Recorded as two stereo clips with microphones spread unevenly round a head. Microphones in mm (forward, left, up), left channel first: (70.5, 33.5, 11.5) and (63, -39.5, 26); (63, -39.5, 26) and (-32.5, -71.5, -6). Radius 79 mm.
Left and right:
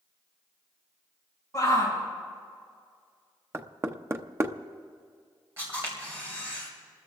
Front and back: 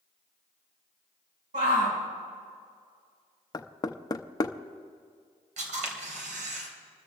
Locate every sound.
1.5 s a shout: 155° left, 6.5 m
3.5 s knocking: 35° right, 0.7 m
5.6 s a camera shutter: 165° right, 2.5 m